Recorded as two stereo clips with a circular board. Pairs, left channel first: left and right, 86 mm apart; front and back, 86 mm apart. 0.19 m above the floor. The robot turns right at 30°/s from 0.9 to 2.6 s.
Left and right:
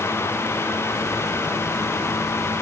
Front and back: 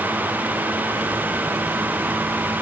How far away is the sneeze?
No sneeze in this recording.